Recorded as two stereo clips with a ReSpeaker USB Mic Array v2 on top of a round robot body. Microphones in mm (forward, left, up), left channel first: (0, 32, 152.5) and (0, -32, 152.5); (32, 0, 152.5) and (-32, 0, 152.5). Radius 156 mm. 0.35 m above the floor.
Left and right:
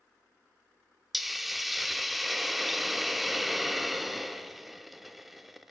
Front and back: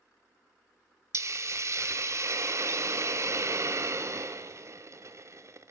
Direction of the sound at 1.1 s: 175° right.